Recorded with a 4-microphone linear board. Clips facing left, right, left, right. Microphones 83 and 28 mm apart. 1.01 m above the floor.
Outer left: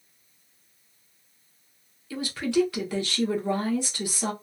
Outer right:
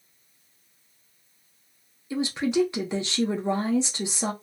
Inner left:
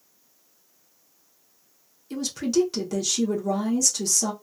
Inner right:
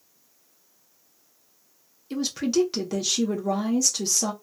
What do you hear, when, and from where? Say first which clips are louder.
2.1 s a woman speaking: outer right 1 dB, even; 20° right (ahead or behind), 0.8 m